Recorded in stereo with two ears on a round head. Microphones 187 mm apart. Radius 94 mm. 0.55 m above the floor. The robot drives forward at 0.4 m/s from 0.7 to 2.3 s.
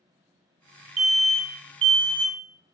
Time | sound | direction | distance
1.0 | an alarm | 30° right (ahead or behind) | 0.7 m